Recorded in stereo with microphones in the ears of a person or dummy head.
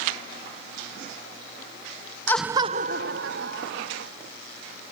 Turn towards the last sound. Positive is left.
turn(degrees=-70)  # may be behind; listen again after turning